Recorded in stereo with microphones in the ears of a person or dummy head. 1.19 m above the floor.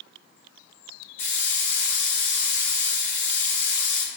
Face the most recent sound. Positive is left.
turn(degrees=15)  # may be behind; listen again after turning